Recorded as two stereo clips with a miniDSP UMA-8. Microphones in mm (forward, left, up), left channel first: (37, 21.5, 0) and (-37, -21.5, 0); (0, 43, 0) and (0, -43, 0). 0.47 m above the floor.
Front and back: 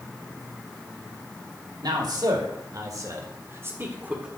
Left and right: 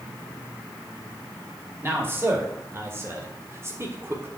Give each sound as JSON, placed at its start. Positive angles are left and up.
{"t": 1.8, "sound": "a man speaking", "azimuth_deg": -145, "distance_m": 2.0}